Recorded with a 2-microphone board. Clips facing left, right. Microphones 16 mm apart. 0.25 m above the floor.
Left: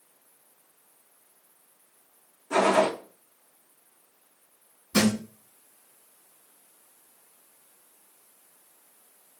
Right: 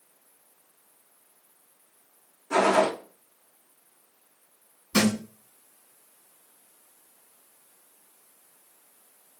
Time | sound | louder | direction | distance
2.5 | a gunshot | even | 65° right (ahead or behind) | 4 m
4.9 | a thud | even | 55° right (ahead or behind) | 5.5 m